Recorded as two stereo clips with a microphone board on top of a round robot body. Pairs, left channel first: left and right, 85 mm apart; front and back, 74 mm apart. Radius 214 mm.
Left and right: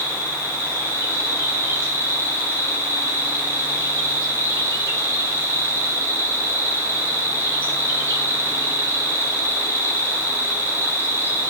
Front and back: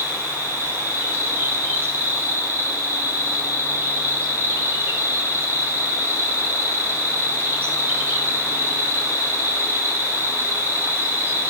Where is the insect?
135° right, 2.5 m.